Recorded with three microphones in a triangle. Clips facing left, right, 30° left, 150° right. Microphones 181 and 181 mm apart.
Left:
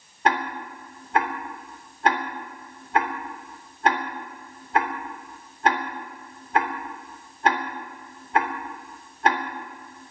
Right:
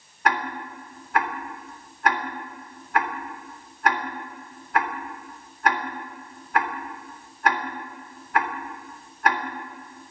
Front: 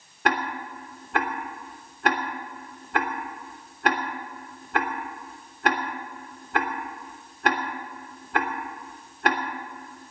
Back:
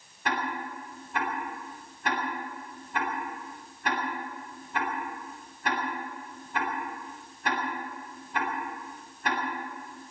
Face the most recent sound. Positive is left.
turn(degrees=25)